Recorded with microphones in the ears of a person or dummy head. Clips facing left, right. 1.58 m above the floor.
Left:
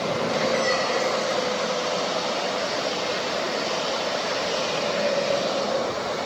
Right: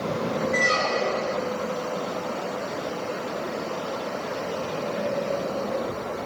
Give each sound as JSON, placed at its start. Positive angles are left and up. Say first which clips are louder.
{"t": 0.5, "sound": "a squeak", "louder": "left 2 dB", "side_deg": -20, "distance_m": 4.5}